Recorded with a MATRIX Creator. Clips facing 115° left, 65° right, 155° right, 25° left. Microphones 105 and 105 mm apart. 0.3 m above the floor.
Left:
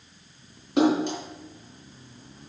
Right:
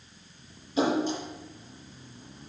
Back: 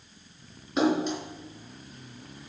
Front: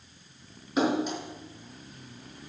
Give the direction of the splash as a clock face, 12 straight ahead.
8 o'clock.